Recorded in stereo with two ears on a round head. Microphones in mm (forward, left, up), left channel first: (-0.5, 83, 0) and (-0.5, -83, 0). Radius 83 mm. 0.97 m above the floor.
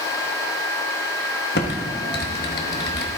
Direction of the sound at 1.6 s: 65° left (ahead or behind).